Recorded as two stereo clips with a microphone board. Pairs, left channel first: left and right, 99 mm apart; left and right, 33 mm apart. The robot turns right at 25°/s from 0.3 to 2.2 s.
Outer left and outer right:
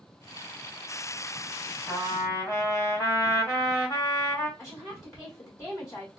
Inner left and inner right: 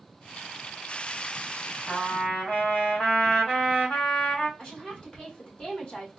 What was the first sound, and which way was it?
A trumpet, 40° left (ahead or behind).